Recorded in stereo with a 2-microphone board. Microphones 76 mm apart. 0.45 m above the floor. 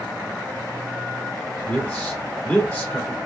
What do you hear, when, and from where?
1.7 s a man speaking: 20° left (ahead or behind), 1.4 m